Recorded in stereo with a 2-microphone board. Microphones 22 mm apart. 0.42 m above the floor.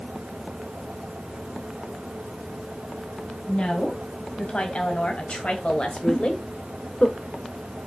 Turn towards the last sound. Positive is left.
turn(degrees=35)  # may be behind; listen again after turning